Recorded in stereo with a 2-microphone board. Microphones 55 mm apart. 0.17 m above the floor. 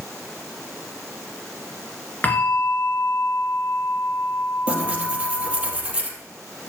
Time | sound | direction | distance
2.2 | a bell | 30° left (ahead or behind) | 2.5 m
4.7 | tearing paper | 20° right (ahead or behind) | 3 m